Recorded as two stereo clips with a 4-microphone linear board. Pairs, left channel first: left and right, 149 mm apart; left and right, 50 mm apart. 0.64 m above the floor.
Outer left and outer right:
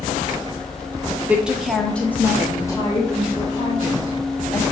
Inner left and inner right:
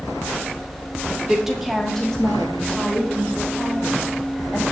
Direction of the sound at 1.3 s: 10° right (ahead or behind).